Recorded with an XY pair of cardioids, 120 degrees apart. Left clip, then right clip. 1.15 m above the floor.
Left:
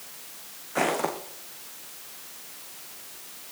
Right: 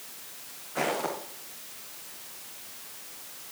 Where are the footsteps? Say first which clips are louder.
Left 3 dB; 35° left, 4 m.